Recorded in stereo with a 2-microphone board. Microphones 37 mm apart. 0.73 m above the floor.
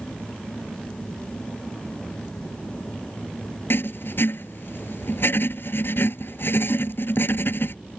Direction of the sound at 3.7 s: 65° left (ahead or behind).